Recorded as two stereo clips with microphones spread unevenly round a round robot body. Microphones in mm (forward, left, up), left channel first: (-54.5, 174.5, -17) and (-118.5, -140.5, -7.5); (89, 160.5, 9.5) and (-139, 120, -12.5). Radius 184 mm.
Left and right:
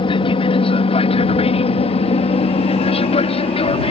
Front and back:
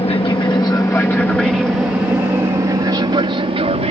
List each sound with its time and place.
0.0 s an aircraft: 35° left; by 3.9 s 145° left